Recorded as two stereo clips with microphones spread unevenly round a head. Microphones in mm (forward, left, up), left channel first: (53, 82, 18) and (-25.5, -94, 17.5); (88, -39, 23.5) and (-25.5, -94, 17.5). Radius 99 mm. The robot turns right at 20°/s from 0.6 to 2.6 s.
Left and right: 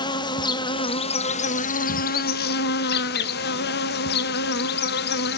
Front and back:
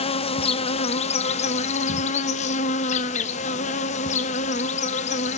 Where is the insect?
Straight ahead, 0.7 m; by 5.4 s 40° left, 0.7 m.